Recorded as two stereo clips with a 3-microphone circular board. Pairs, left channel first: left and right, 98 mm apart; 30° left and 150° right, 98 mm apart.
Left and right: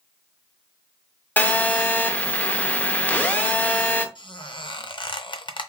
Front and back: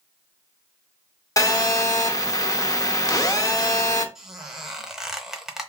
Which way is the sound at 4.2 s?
125° left.